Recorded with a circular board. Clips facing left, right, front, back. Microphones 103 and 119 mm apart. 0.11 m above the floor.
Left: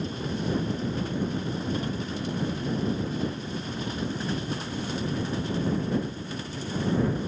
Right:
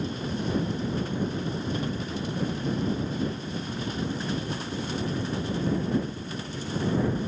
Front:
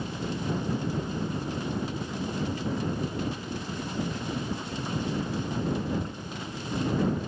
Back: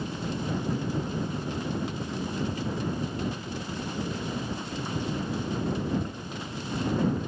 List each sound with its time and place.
Only background noise.